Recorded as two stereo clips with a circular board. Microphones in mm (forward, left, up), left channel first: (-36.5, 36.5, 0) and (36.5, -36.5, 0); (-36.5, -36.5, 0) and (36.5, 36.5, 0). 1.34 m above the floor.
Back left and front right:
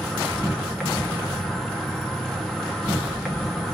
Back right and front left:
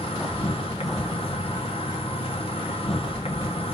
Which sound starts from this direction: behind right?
An insect, at 0.0 s.